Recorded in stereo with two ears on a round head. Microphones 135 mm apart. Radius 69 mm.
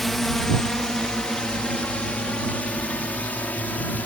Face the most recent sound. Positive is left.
turn(degrees=10)  # may be behind; listen again after turning